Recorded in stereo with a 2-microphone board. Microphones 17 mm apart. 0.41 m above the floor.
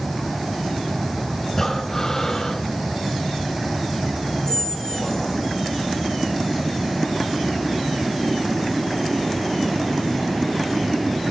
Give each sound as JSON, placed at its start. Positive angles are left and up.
{"t": 1.5, "sound": "breathing", "side_deg": 25, "distance_m": 1.3}
{"t": 4.5, "sound": "a squeak", "side_deg": 45, "distance_m": 2.0}